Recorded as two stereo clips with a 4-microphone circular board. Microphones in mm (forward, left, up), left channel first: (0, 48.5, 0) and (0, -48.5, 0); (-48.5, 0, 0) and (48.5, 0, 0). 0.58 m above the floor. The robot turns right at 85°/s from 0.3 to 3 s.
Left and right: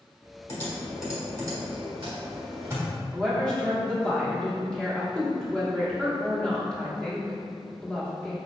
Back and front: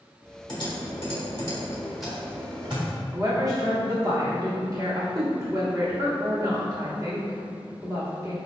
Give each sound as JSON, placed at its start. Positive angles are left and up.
{"t": 0.5, "sound": "typing on a keyboard", "azimuth_deg": 140, "distance_m": 1.5}
{"t": 3.1, "sound": "a woman speaking", "azimuth_deg": 20, "distance_m": 1.5}